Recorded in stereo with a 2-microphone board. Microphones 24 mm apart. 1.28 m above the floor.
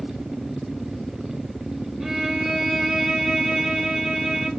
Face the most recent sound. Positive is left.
turn(degrees=-30)  # may be behind; listen again after turning